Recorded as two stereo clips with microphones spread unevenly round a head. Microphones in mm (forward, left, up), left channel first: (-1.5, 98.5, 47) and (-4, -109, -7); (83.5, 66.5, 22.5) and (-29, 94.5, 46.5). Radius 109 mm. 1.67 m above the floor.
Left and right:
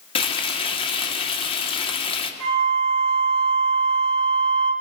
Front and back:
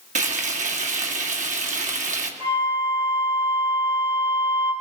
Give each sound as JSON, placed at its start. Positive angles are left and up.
{"t": 0.1, "sound": "frying", "azimuth_deg": 155, "distance_m": 2.0}
{"t": 2.4, "sound": "a flute", "azimuth_deg": -120, "distance_m": 3.0}